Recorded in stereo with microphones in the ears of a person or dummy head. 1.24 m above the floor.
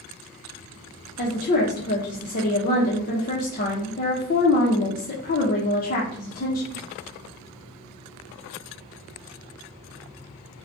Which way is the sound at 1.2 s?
40° left (ahead or behind).